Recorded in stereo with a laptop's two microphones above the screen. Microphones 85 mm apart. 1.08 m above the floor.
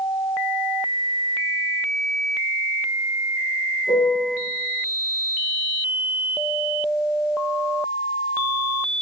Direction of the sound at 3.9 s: 70° left (ahead or behind).